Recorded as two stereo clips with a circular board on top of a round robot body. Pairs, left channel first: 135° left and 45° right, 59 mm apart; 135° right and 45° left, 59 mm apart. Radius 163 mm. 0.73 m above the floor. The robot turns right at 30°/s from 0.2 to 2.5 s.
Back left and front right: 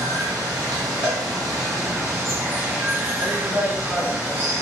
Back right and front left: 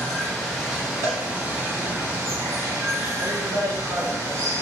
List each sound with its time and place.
0.0 s running water: 55° right, 0.7 m; by 4.6 s 15° left, 0.7 m
1.0 s a cowbell: 20° left, 1.2 m; by 1.2 s 25° left, 1.2 m
3.2 s a woman speaking: 40° left, 1.6 m